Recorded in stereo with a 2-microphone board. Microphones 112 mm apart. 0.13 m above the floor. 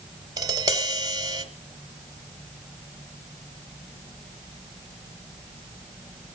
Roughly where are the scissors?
I don't hear scissors.